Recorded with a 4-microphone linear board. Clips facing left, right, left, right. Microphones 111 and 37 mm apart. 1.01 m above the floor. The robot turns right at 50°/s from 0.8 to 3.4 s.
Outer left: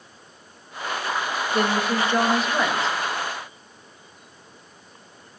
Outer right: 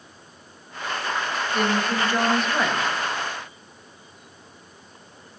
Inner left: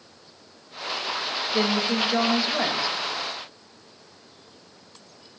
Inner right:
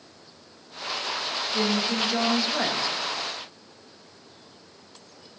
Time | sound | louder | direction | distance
1.5 | a woman speaking | outer left 1 dB, inner left 2 dB | 130° left | 1.4 m